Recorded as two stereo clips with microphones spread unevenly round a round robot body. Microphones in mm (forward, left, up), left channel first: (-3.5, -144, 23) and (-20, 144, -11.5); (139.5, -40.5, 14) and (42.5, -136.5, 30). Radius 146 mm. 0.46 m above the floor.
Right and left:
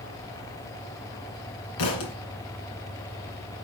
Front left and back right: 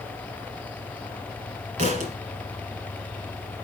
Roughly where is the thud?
Right.